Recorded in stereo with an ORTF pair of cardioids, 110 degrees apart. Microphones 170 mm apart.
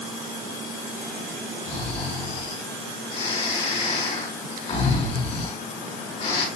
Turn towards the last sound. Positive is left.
turn(degrees=40)